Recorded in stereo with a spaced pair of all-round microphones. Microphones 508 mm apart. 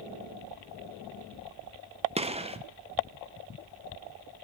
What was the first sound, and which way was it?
A gunshot, 15° right (ahead or behind).